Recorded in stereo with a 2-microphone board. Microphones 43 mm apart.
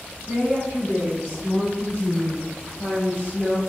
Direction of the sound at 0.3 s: 50° left (ahead or behind).